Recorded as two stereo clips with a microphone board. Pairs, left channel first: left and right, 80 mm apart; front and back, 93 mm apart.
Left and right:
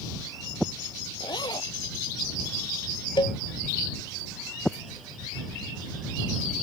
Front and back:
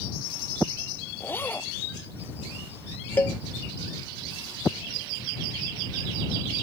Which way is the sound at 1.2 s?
70° left.